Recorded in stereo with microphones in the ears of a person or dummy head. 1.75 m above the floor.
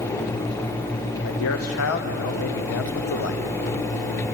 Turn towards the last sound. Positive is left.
turn(degrees=75)  # may be behind; listen again after turning